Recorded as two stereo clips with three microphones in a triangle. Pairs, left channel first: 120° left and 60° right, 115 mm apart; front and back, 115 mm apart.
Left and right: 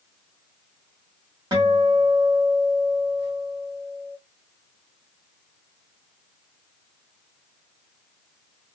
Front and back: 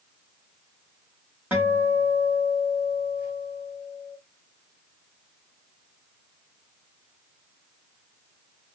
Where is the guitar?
105° right, 1.3 m.